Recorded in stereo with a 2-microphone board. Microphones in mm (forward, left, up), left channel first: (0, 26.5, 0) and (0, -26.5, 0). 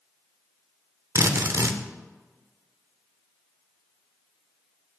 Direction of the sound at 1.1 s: 65° right (ahead or behind).